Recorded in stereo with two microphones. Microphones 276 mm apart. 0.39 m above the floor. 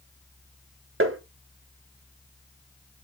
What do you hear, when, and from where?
1.0 s tapping: 50° right (ahead or behind), 0.9 m